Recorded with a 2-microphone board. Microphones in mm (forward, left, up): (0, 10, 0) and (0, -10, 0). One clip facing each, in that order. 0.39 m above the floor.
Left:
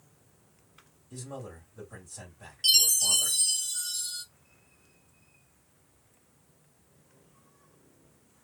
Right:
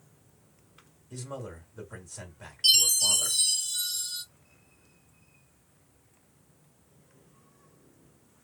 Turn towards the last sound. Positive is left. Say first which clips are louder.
# right 1 dB
turn(degrees=-5)  # may be behind; listen again after turning